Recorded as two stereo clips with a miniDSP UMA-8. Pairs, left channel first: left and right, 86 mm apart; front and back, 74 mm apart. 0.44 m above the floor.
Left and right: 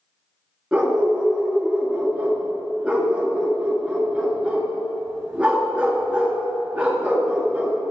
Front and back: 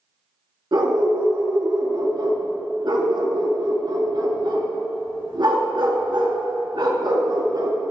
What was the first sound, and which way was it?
A dog barking, 170° right.